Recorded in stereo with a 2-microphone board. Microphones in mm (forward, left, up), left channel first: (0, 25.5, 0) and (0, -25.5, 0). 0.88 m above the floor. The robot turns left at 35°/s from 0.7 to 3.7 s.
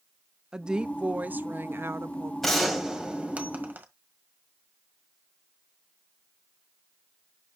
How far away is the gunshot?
About 1.6 m.